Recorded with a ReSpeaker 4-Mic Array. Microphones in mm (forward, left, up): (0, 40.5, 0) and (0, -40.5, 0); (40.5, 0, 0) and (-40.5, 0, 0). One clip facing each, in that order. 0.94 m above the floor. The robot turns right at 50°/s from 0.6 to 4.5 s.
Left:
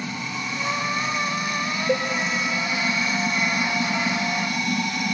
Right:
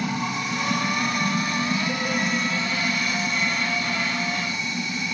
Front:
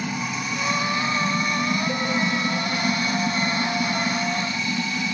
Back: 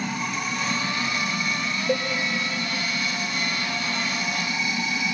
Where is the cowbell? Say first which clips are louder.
Left 5 dB, back 2 dB; 130° left, 2 m; by 2.1 s 140° left, 2 m.